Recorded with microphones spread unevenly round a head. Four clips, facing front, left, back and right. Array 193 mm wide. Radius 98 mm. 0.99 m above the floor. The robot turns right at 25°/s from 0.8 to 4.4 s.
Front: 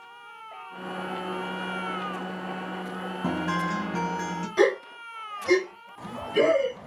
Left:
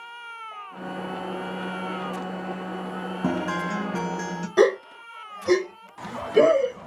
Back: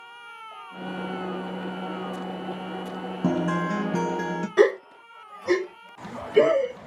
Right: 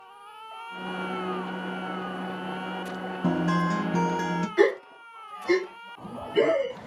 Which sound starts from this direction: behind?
A guitar, at 3.2 s.